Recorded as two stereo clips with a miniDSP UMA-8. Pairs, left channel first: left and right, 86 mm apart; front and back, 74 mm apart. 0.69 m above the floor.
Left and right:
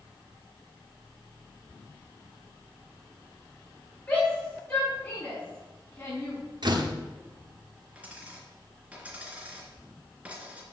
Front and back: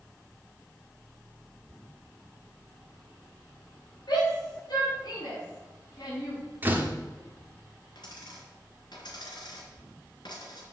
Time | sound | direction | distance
4.1 | a shout | 25° left | 5 m
6.6 | a door slam | 120° right | 1.3 m
8.0 | a dropped coin | 15° right | 3 m